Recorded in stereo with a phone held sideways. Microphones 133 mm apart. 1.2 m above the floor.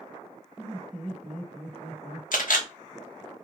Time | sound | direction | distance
0.6 | laughter | 10° right (ahead or behind) | 1.6 m
2.3 | a camera shutter | 80° left | 0.7 m